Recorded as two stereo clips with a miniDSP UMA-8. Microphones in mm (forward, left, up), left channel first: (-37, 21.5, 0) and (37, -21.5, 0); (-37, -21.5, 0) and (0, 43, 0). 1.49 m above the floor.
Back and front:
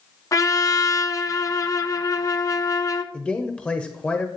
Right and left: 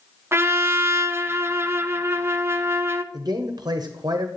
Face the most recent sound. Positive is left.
turn(degrees=75)